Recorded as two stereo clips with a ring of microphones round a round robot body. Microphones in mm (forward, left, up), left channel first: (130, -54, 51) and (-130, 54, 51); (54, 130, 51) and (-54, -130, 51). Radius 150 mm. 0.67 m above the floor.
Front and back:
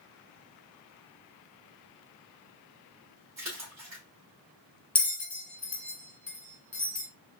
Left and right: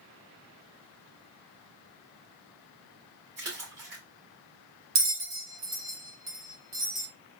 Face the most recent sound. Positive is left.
turn(degrees=-105)